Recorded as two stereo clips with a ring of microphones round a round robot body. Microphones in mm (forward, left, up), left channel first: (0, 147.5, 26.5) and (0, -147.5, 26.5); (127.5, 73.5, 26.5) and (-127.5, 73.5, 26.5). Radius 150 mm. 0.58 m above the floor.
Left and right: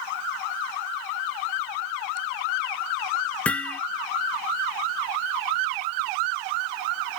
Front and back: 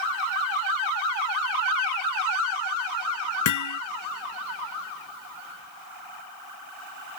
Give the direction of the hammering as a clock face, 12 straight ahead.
12 o'clock.